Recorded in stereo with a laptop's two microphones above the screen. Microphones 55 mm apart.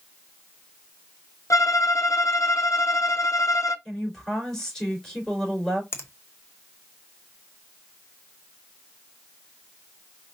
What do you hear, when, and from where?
1.5 s a violin: 60° left (ahead or behind), 0.6 m
3.9 s a woman speaking: 10° left (ahead or behind), 4 m
5.9 s a finger snap: 50° left (ahead or behind), 1.1 m